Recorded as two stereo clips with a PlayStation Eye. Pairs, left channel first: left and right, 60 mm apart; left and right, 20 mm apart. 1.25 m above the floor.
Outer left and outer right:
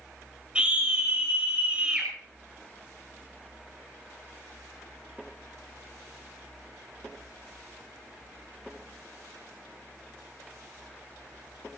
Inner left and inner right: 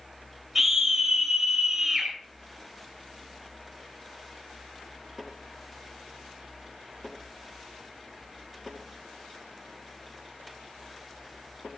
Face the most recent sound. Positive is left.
turn(degrees=-20)  # may be behind; listen again after turning